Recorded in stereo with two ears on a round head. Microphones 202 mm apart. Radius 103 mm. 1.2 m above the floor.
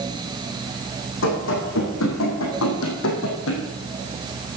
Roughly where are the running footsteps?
Left.